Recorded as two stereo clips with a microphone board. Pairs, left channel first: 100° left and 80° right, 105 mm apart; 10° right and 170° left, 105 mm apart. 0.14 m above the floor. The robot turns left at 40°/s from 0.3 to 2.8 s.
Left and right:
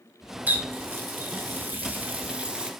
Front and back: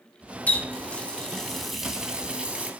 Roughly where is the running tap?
Ahead right.